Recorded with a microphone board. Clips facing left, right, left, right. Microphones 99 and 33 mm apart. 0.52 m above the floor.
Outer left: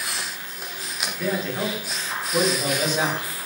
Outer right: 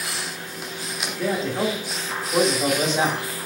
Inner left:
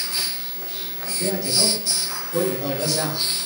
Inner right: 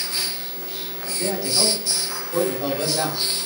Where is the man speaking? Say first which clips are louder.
Outer right 2 dB, even; 25° right (ahead or behind), 1.0 m.